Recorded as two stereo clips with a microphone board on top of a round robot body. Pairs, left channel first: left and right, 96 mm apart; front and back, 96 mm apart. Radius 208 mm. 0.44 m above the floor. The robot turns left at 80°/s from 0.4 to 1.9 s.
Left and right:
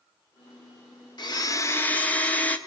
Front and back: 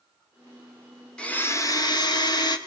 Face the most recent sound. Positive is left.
turn(degrees=20)